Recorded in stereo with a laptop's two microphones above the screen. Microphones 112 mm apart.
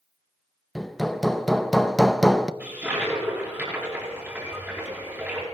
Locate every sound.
0.8 s hammering: centre (ahead or behind), 0.7 m
2.6 s a toilet flushing: 15° right (ahead or behind), 4.5 m